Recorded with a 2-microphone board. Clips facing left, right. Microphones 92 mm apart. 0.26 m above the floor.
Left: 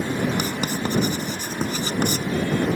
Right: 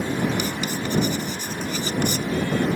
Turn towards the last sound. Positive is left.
turn(degrees=45)  # may be behind; listen again after turning